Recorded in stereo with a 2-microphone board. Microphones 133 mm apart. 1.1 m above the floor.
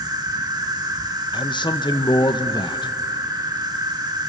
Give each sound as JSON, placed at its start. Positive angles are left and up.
{"t": 0.0, "sound": "an insect", "side_deg": -30, "distance_m": 1.7}
{"t": 1.3, "sound": "a man speaking", "side_deg": 35, "distance_m": 1.0}